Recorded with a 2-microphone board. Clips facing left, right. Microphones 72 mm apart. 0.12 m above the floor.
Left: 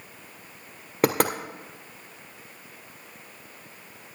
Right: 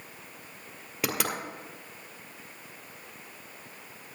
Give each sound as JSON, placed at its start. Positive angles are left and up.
{"t": 1.0, "sound": "knocking", "side_deg": 50, "distance_m": 1.7}